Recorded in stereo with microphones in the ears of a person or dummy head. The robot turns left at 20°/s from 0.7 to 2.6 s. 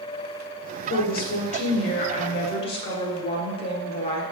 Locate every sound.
0.9 s a woman speaking: 70° left, 0.8 m; by 4.2 s 35° left, 0.8 m